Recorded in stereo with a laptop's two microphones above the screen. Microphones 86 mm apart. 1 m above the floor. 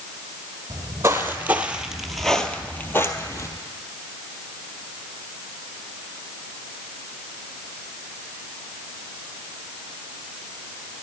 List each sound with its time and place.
0.7 s footsteps: 35° right (ahead or behind), 1.3 m; by 3.5 s 40° left (ahead or behind), 1.2 m